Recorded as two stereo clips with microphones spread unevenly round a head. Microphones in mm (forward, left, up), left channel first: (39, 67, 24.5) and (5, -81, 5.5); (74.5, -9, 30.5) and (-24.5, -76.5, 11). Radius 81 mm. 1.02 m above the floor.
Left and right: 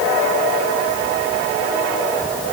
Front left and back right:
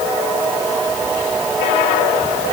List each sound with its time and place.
Only background noise.